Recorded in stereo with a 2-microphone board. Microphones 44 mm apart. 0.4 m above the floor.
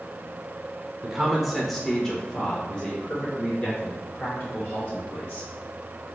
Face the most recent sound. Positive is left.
turn(degrees=40)  # may be behind; listen again after turning